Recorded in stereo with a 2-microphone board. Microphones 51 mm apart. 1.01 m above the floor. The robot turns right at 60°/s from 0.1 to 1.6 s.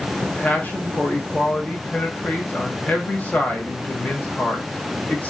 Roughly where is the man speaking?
Ahead left.